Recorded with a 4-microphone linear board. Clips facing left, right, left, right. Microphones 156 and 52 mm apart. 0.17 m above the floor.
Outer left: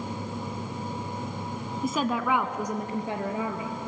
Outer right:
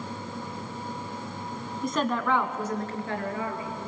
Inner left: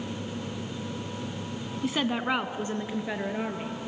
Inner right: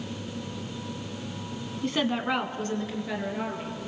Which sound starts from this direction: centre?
A woman speaking, at 1.8 s.